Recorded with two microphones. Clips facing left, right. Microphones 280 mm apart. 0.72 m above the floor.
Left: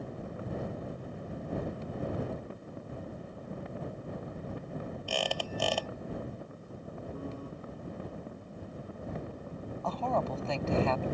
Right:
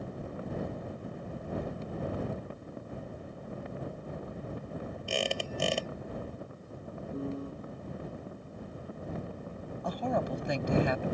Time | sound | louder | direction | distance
5.1 | a squeak | right 2 dB | 25° right (ahead or behind) | ?
7.1 | a piano | right 7 dB | 25° right (ahead or behind) | ?
9.8 | a woman speaking | right 1 dB | 15° right (ahead or behind) | ?